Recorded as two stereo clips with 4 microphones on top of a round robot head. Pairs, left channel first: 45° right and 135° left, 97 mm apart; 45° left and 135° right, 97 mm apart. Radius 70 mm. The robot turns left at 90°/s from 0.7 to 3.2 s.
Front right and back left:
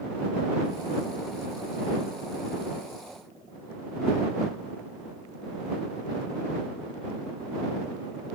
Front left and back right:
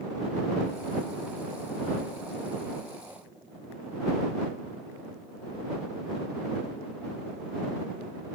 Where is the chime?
I don't hear a chime.